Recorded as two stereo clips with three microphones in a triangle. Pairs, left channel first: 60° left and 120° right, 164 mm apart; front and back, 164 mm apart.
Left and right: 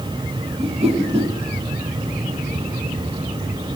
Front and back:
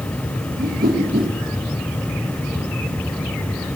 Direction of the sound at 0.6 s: 170° right.